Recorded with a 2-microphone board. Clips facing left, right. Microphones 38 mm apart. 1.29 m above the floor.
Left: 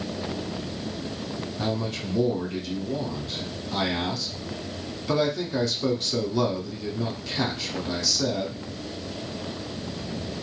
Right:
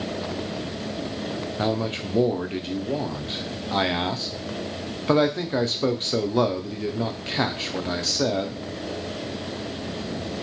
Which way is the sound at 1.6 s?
40° right (ahead or behind).